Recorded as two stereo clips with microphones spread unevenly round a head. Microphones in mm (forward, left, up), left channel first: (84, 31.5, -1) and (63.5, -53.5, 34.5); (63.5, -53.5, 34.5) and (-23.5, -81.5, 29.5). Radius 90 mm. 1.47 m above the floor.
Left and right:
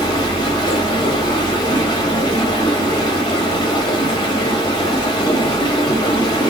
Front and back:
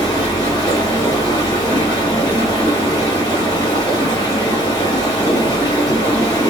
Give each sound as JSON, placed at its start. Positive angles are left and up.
{"t": 0.0, "sound": "running water", "azimuth_deg": 30, "distance_m": 1.3}